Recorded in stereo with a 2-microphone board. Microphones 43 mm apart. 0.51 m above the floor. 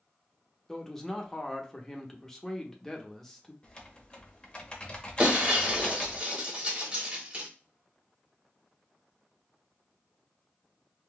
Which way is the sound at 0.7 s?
10° left (ahead or behind).